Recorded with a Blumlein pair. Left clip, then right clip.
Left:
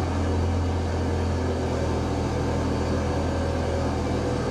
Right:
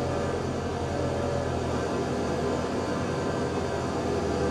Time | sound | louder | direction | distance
0.0 | an engine running | even | 70° left | 1.2 m